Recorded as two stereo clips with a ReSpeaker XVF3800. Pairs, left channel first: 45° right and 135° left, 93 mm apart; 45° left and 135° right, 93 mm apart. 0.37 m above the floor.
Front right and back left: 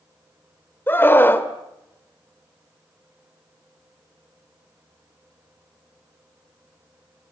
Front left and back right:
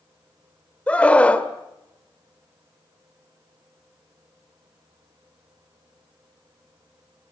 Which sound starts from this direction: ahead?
A scream, at 0.9 s.